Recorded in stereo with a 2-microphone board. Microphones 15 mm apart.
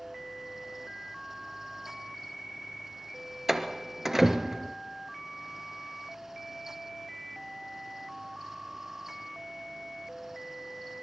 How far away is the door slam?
About 2.5 m.